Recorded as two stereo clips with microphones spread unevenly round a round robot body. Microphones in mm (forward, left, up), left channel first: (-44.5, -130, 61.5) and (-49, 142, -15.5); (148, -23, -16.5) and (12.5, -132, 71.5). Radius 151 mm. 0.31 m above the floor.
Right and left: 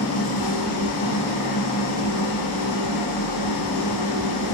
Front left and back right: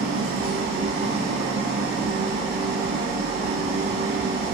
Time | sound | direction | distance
0.0 | an engine running | 120° right | 1.3 m